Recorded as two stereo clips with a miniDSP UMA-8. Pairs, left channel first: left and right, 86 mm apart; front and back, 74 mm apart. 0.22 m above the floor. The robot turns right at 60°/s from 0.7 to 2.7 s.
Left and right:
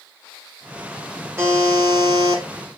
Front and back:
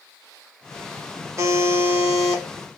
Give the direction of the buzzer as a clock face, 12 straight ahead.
5 o'clock.